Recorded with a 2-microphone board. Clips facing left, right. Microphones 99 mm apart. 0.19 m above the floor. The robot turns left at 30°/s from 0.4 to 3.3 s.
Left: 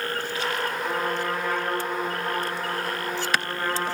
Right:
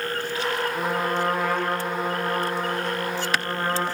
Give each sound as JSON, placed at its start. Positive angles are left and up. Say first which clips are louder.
{"t": 0.8, "sound": "a trumpet", "louder": "right 2 dB", "azimuth_deg": -80, "distance_m": 10.0}